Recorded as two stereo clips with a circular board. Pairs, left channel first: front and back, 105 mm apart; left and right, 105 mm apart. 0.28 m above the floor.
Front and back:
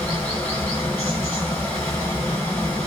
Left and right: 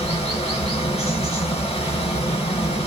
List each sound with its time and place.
0.0 s running water: 70° left, 2 m